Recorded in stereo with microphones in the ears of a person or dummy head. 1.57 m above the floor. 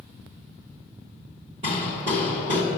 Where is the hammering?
40° right (ahead or behind), 3.5 m.